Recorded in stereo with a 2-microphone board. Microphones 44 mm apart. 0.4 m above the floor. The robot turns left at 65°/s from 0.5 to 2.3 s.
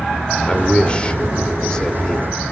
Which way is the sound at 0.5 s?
15° left (ahead or behind).